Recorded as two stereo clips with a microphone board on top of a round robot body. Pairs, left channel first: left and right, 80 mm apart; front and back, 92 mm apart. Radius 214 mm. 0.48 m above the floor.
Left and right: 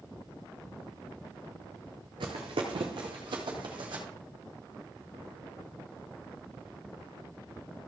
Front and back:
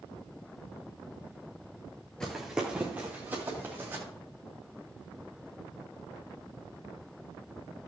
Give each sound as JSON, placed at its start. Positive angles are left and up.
{"t": 2.2, "sound": "running footsteps", "azimuth_deg": -80, "distance_m": 0.6}